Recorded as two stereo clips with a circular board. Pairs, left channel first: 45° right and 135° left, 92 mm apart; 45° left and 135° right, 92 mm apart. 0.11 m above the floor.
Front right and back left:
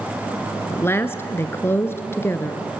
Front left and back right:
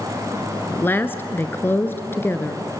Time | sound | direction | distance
0.7 | a woman speaking | 5° right | 1.2 m